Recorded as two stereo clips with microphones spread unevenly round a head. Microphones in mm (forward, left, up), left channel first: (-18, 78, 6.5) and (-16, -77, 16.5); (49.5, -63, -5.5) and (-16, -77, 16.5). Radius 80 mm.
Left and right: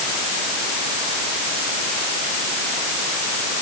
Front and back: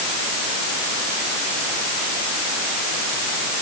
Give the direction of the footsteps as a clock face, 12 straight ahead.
No footsteps in this recording.